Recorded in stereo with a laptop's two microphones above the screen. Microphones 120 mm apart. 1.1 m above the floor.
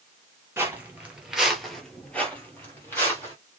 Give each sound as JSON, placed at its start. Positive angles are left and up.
{"t": 0.6, "sound": "footsteps", "side_deg": -20, "distance_m": 1.2}